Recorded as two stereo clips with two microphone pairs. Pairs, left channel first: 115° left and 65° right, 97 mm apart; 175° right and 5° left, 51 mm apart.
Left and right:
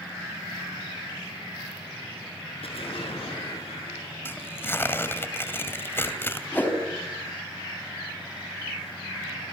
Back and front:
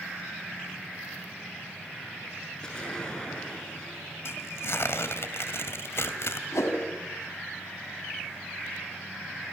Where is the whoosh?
170° right, 3.5 m.